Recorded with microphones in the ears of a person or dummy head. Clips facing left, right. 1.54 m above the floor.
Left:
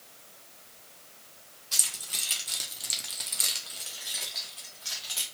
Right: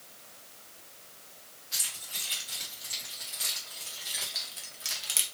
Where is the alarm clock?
I don't hear an alarm clock.